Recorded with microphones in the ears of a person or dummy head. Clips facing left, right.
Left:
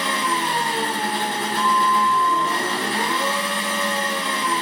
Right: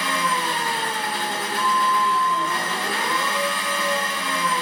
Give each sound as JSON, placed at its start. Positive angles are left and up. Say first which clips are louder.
{"t": 0.0, "sound": "an engine running", "louder": "left 1 dB", "side_deg": 25, "distance_m": 0.9}
{"t": 1.6, "sound": "a flute", "louder": "left 2 dB", "side_deg": -20, "distance_m": 0.7}